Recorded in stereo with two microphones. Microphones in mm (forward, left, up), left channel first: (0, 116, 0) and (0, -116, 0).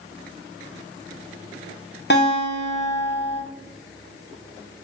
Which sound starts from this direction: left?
A guitar, at 2.1 s.